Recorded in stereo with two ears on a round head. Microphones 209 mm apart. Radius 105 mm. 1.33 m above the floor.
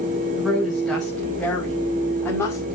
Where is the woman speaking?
5° right (ahead or behind), 6.5 m; by 2.6 s 10° left (ahead or behind), 6 m.